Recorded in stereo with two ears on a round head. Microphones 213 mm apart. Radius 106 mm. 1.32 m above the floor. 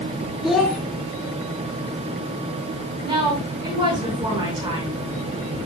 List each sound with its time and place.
0.4 s a child speaking: centre (ahead or behind), 1.9 m
3.0 s a woman speaking: 20° right (ahead or behind), 6.5 m